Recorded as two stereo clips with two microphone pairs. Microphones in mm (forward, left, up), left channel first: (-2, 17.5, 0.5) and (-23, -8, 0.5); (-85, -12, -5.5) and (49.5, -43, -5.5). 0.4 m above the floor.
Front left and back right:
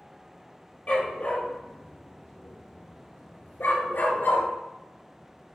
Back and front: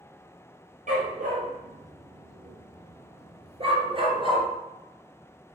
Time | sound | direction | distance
0.9 | a dog barking | 5° left | 3.5 m